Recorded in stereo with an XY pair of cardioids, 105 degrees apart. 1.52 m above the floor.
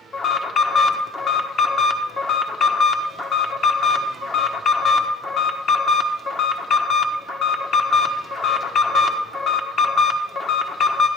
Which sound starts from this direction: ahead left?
An alarm, at 0.1 s.